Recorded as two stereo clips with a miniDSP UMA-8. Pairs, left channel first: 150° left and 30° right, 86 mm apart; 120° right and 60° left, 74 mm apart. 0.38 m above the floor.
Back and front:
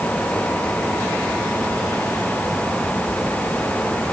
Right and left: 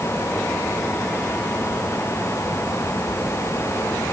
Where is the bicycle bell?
I don't hear a bicycle bell.